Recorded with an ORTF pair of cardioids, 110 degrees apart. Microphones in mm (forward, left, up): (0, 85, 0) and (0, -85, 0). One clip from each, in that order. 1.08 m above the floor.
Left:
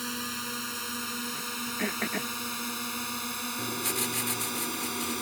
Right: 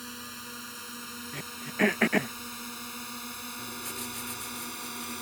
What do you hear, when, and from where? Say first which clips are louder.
0.0 s a drone: left 7 dB; 40° left; by 5.2 s 25° left
1.3 s throat clearing: right 1 dB; 40° right
3.6 s writing: left 8 dB; 55° left